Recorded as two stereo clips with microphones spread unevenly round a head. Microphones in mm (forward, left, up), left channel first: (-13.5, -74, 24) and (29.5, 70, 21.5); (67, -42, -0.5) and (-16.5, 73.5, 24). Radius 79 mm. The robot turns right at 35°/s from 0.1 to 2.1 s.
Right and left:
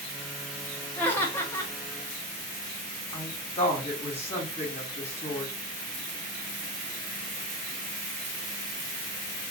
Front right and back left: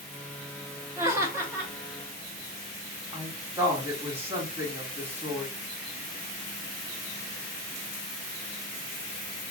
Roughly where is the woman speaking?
Behind right.